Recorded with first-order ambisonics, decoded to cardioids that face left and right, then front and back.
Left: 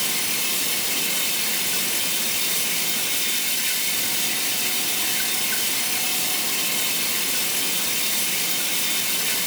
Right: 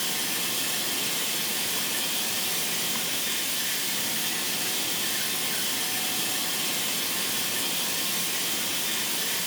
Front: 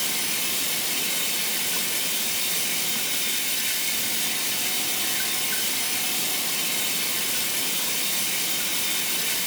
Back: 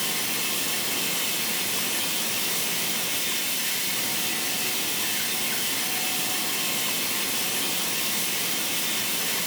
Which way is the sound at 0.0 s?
85° left.